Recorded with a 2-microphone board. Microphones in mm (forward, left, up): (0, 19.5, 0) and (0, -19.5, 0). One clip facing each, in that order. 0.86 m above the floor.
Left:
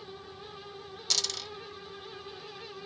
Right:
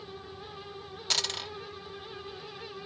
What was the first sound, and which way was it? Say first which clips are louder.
A dropped coin: right 3 dB; 30° right (ahead or behind).